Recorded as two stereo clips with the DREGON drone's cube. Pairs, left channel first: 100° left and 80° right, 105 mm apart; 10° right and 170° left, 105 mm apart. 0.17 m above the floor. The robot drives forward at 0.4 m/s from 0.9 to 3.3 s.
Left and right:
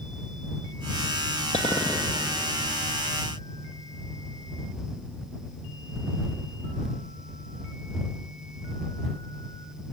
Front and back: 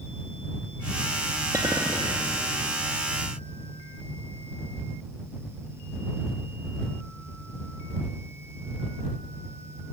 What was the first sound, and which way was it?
A clink, 105° left.